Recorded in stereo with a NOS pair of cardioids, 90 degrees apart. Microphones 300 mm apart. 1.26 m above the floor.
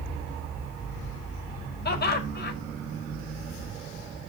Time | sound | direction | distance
1.9 | laughter | 35° left | 5.5 m